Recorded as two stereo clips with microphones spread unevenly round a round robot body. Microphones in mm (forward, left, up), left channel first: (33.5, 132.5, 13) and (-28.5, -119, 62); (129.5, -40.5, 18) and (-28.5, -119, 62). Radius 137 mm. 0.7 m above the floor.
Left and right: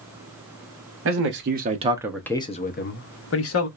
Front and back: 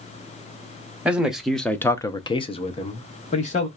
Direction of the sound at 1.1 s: 65° right.